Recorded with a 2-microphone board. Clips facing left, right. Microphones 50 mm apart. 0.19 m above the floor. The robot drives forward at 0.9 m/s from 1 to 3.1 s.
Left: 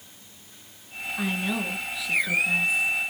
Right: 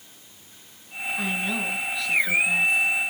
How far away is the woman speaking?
About 2.5 m.